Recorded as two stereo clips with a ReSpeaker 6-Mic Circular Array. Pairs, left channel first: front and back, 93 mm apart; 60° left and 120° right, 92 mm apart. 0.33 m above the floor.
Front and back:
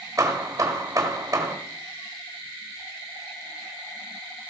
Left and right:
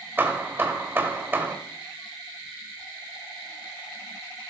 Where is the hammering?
170° right, 1.2 m.